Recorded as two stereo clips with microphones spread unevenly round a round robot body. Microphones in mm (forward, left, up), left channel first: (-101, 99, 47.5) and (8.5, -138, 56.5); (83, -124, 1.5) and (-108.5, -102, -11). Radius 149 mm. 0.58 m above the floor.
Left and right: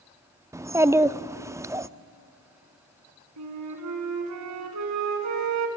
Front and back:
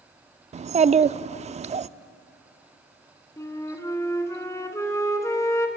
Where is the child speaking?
145° right, 0.5 m.